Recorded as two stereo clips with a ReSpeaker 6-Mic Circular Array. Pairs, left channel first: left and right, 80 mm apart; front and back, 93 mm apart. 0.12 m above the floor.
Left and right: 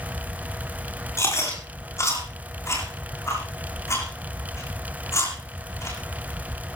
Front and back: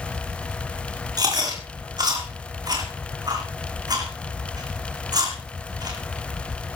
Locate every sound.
1.2 s chewing: 140° left, 7.5 m